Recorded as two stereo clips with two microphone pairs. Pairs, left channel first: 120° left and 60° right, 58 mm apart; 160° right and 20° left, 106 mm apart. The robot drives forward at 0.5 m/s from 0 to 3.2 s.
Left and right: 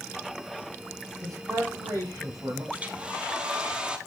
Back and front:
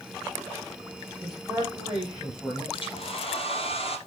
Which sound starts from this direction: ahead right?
A man speaking, at 1.2 s.